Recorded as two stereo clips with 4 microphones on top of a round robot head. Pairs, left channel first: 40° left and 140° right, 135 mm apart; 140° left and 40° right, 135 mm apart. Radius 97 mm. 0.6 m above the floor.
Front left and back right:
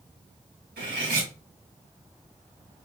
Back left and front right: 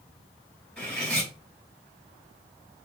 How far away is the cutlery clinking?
About 2.5 m.